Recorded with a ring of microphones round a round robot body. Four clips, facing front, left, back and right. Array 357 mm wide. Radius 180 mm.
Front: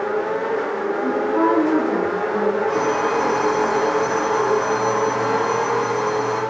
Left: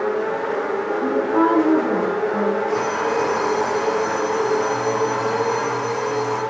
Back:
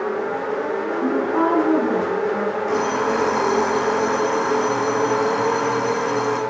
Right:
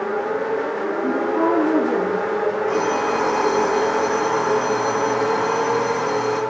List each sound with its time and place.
1.0 s a woman speaking: 130° left, 6 m
2.7 s an alarm clock: 155° right, 4.5 m